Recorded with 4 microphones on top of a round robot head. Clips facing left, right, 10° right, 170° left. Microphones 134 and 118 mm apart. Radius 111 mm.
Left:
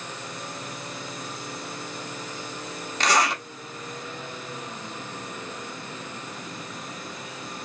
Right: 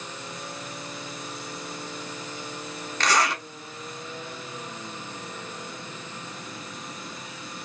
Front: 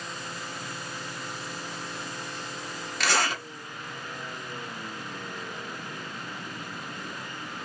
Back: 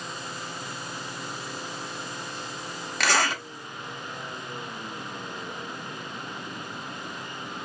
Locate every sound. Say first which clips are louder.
3.0 s a zipper: left 1 dB, back 2 dB; 160° left, 1.0 m